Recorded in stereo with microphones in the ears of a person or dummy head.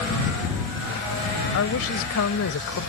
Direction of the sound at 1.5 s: 80° left.